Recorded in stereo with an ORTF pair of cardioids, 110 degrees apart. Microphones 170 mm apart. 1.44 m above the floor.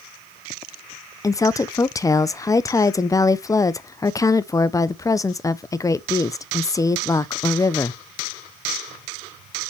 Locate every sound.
1.2 s a woman speaking: 20° left, 0.6 m